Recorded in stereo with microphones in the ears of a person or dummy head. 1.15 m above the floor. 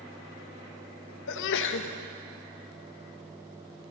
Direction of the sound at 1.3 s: 65° left (ahead or behind).